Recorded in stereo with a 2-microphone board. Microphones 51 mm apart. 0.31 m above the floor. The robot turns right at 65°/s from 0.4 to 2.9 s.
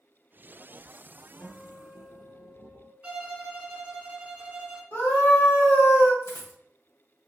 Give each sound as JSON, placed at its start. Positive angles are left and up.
{"t": 1.4, "sound": "a guitar", "azimuth_deg": 35, "distance_m": 1.5}
{"t": 3.0, "sound": "a violin", "side_deg": -25, "distance_m": 1.0}
{"t": 4.9, "sound": "a scream", "side_deg": 50, "distance_m": 1.7}
{"t": 6.2, "sound": "a dropped coin", "side_deg": 55, "distance_m": 0.8}